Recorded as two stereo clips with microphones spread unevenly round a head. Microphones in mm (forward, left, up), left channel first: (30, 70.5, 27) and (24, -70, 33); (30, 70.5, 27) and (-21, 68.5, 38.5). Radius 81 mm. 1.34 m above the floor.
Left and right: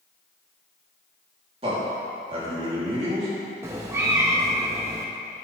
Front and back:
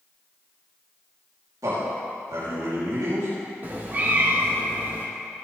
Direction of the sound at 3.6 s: 155° right.